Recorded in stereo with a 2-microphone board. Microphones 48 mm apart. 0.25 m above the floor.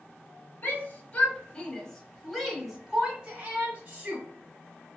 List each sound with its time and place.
0.6 s a shout: 40° left (ahead or behind), 1.2 m; by 4.2 s 35° right (ahead or behind), 1.6 m